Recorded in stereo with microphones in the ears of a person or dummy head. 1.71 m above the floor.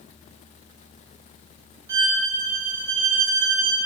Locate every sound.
1.9 s a violin: 25° right (ahead or behind), 0.5 m